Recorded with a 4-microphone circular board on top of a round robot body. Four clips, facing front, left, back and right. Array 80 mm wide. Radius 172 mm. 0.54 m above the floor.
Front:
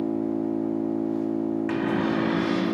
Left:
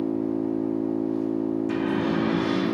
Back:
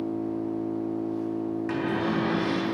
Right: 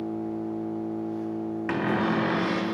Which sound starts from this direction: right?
A cupboard door, at 1.7 s.